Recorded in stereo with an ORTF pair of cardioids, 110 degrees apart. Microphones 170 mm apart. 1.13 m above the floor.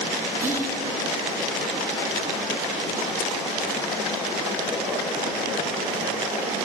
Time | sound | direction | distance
0.4 | whispering | 15° right | 0.9 m